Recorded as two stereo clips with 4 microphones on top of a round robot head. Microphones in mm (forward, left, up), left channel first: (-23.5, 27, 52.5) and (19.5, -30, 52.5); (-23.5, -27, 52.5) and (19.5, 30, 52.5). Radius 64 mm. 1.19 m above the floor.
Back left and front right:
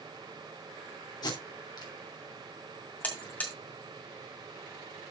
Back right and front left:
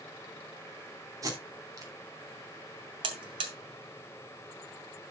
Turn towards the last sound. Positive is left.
turn(degrees=55)